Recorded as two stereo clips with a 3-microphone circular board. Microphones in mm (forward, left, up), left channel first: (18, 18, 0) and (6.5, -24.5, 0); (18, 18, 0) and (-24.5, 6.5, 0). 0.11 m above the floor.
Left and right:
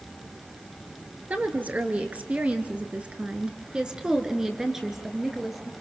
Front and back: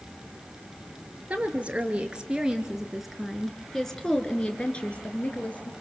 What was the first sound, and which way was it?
A woman speaking, 125° right.